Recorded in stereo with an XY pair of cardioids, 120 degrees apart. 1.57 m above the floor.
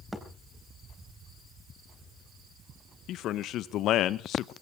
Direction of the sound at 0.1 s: 5° right.